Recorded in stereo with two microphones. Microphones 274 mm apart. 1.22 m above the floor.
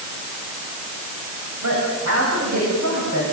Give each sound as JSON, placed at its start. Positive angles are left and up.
{"t": 1.6, "sound": "a woman speaking", "side_deg": -85, "distance_m": 8.0}